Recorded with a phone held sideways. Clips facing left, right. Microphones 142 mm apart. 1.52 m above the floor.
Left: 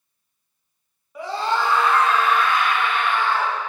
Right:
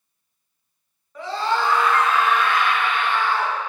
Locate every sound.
1.1 s a scream: 10° left (ahead or behind), 1.4 m; by 3.5 s 50° left (ahead or behind), 2 m